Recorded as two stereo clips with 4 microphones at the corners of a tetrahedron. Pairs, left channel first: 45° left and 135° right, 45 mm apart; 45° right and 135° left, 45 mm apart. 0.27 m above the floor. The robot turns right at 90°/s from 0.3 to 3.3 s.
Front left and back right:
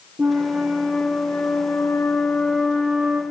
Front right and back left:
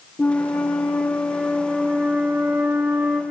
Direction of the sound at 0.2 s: 100° right.